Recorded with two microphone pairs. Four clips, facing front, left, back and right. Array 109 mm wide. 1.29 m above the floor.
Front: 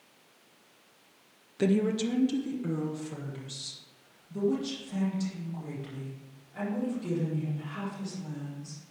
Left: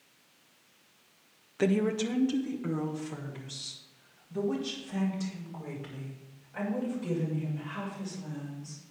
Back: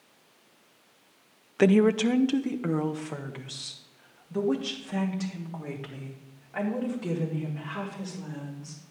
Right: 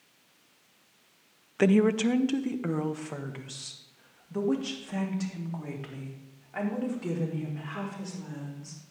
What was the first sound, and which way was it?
A woman speaking, 155° right.